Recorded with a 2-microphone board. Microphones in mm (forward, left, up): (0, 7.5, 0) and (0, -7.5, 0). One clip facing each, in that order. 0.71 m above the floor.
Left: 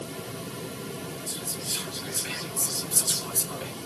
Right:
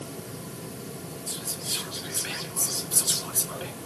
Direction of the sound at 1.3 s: 15° right (ahead or behind).